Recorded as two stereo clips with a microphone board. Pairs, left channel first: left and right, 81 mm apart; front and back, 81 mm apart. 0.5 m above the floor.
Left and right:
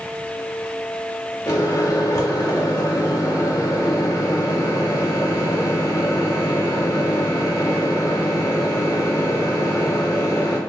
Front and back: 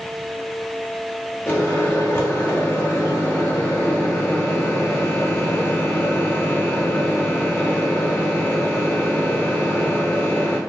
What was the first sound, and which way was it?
A microwave, 60° left.